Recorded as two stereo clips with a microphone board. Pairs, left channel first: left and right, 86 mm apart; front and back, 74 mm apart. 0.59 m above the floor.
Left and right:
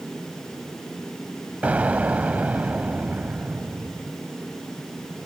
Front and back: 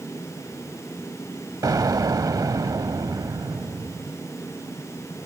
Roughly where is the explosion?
Behind.